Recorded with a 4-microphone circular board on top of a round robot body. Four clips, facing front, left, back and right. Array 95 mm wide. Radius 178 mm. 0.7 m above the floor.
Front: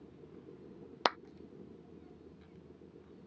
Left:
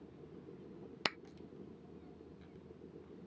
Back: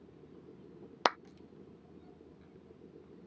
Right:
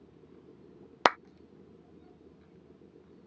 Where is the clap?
95° right.